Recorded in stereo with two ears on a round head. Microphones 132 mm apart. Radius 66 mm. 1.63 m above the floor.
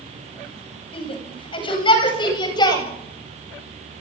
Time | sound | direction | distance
0.9 | a shout | 40° left (ahead or behind) | 9 m